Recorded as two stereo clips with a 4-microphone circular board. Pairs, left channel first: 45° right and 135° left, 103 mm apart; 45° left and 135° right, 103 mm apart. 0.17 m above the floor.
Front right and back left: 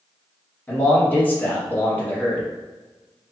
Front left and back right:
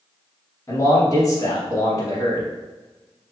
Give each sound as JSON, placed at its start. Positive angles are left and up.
{"t": 0.7, "sound": "a man speaking", "azimuth_deg": 15, "distance_m": 1.2}